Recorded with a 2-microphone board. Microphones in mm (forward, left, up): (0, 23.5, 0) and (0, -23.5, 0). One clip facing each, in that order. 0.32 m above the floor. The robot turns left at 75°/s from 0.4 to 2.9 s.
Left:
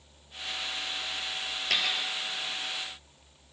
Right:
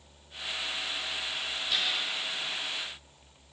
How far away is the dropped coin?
About 1.3 m.